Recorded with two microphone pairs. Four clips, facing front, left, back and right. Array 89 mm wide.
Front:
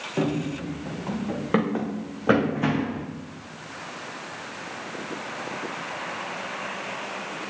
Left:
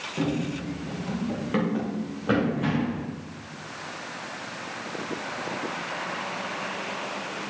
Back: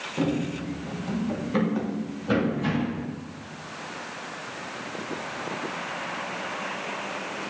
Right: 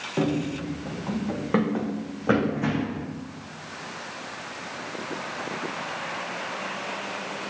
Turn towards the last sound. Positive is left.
turn(degrees=0)